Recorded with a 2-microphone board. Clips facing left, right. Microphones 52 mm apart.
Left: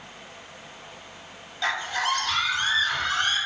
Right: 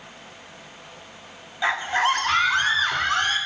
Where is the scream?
20° right (ahead or behind), 1.3 m; by 3.4 s 70° right (ahead or behind), 2.0 m.